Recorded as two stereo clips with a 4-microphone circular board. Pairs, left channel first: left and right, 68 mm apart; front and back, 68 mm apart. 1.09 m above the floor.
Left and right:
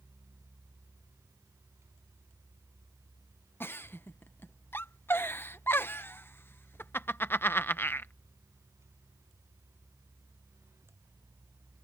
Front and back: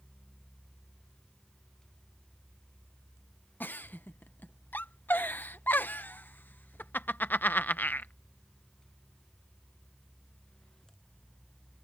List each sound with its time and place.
3.6 s a giggle: 50° left